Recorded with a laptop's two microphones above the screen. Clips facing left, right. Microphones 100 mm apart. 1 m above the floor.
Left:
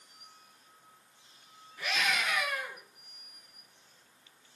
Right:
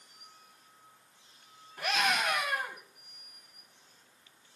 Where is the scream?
60° right (ahead or behind), 6 m.